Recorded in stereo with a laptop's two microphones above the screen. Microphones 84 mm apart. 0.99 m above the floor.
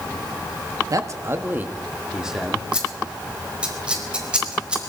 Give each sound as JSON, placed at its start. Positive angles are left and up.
{"t": 0.9, "sound": "a man speaking", "side_deg": -50, "distance_m": 1.6}
{"t": 2.7, "sound": "scissors", "side_deg": -15, "distance_m": 4.0}